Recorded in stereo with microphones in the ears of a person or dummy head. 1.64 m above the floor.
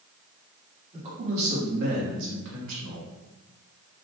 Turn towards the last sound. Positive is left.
turn(degrees=-70)  # may be behind; listen again after turning